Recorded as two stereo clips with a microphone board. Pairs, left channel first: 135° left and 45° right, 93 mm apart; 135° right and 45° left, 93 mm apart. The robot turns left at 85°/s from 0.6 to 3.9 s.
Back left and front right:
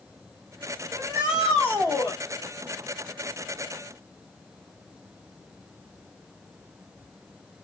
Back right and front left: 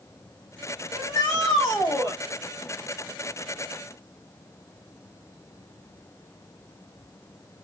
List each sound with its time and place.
0.9 s a shout: 90° right, 2.5 m; by 2.2 s 165° left, 2.5 m